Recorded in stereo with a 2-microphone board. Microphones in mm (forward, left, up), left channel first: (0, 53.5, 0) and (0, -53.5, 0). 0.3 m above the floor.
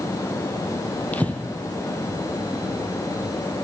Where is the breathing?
15° left (ahead or behind), 2 m.